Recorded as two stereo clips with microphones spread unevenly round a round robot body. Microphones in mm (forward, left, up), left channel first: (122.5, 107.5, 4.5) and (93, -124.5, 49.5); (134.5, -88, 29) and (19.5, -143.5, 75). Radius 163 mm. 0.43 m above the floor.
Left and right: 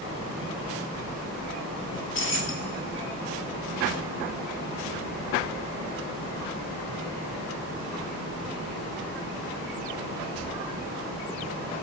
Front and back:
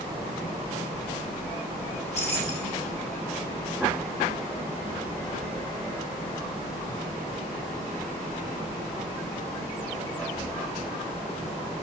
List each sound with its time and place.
1.9 s keys jangling: 50° left, 2.5 m